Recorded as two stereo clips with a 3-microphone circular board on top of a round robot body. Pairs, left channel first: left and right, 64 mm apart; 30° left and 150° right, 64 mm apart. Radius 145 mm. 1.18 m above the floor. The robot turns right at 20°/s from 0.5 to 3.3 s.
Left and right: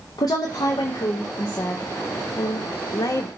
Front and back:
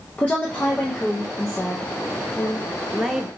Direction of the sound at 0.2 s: 100° left.